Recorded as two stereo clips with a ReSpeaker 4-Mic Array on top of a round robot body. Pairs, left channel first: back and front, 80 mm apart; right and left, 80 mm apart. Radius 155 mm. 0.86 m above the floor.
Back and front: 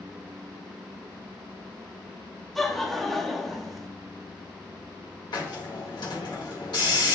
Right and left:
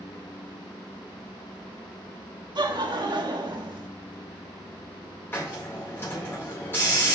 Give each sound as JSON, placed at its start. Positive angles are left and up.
{"t": 2.5, "sound": "laughter", "azimuth_deg": 90, "distance_m": 1.4}
{"t": 5.3, "sound": "a hiss", "azimuth_deg": -150, "distance_m": 2.0}